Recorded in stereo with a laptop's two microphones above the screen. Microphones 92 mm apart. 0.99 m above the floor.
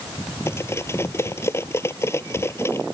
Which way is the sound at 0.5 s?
30° left (ahead or behind).